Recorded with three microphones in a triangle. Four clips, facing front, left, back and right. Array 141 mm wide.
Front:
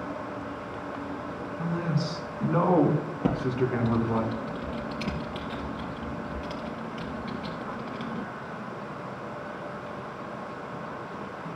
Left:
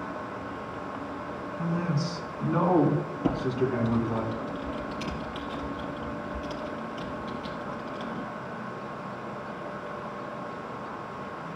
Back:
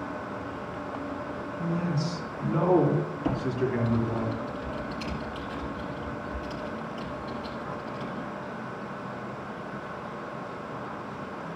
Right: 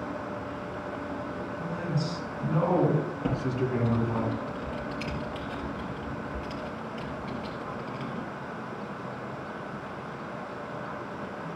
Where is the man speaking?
40° left, 3 m; by 4.2 s 5° left, 3 m.